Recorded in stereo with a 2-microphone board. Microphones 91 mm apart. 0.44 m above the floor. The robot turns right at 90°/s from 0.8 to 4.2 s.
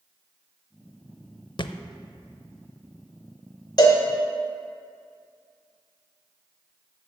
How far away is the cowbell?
About 1.5 m.